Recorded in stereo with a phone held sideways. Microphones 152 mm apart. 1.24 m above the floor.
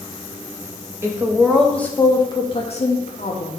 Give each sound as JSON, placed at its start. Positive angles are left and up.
{"t": 1.0, "sound": "a woman speaking", "side_deg": -15, "distance_m": 1.7}